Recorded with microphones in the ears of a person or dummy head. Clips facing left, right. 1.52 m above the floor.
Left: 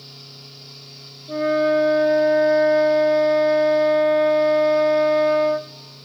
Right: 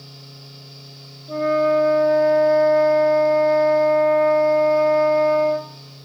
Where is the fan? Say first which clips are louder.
Right 1 dB; 35° left (ahead or behind), 7.5 m.